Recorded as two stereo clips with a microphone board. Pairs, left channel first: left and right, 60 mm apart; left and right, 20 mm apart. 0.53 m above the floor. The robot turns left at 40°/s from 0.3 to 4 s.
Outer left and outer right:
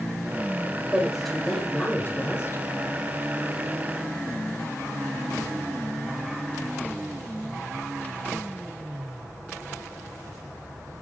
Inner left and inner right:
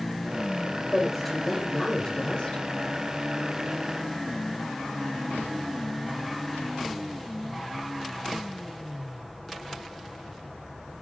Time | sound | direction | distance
0.9 | a woman speaking | 165° right | 1.9 m